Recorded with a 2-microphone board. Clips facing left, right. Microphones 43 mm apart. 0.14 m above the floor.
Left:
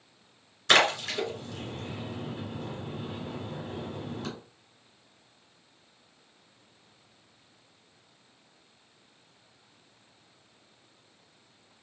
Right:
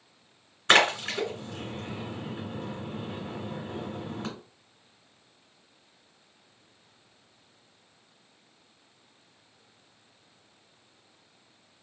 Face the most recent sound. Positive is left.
turn(degrees=-30)  # may be behind; listen again after turning